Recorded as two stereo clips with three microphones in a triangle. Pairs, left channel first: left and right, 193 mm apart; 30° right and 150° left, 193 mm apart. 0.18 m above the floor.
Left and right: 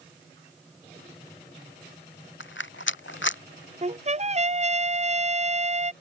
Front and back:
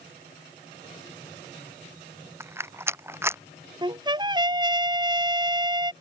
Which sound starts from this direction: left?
A rattle, at 2.4 s.